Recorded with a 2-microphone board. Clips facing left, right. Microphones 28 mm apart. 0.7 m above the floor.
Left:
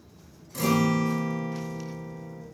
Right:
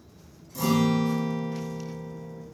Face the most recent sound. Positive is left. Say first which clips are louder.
# even
turn(degrees=70)  # may be behind; listen again after turning